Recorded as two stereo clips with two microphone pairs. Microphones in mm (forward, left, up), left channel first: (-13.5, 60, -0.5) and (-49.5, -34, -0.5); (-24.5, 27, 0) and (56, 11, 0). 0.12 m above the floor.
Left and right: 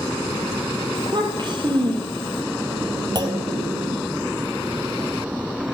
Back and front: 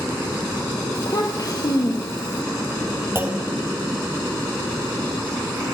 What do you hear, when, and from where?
0.9 s a child speaking: 150° right, 3 m
3.1 s a clunk: 70° right, 1.6 m